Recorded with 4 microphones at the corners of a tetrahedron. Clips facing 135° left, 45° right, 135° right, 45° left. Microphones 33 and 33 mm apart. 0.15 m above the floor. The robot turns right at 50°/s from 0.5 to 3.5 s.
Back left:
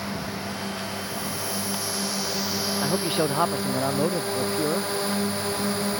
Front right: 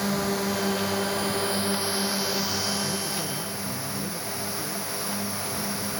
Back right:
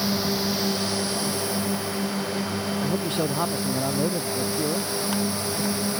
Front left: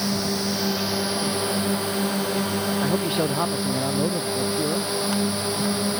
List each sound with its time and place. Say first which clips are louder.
0.0 s a drone: front right 5 dB, even; 50° right; by 6.0 s 100° left
2.8 s a man speaking: back left 6 dB, front left 2 dB; 100° left; by 4.9 s 135° left